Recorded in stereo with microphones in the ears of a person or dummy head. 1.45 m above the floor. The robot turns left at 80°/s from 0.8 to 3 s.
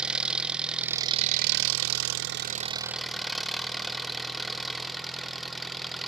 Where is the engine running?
5° right, 0.8 m; by 6.1 s straight behind, 0.8 m.